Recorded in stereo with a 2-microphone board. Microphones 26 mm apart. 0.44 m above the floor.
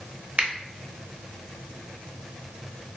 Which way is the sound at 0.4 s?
40° right (ahead or behind).